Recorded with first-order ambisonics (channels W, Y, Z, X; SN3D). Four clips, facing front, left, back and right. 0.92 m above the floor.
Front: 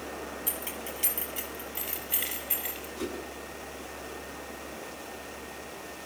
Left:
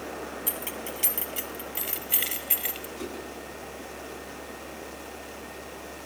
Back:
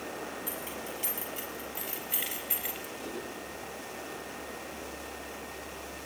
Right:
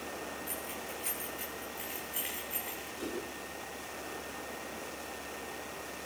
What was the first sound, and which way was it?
Keys jangling, 65° left.